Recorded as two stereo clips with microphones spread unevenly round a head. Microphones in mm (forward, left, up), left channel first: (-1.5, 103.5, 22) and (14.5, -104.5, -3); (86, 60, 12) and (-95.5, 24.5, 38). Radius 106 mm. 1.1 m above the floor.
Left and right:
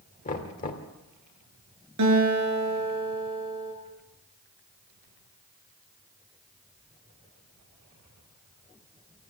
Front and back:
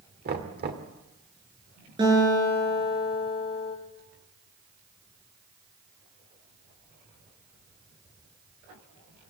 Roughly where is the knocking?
Behind left.